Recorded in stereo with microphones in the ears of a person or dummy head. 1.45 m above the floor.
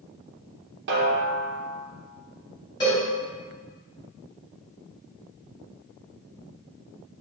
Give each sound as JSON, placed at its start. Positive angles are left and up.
{"t": 0.9, "sound": "a snare drum", "side_deg": -55, "distance_m": 0.7}
{"t": 2.8, "sound": "a cowbell", "side_deg": 20, "distance_m": 1.4}